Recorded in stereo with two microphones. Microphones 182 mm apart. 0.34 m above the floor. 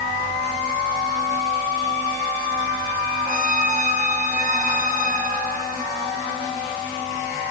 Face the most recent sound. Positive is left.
turn(degrees=50)  # may be behind; listen again after turning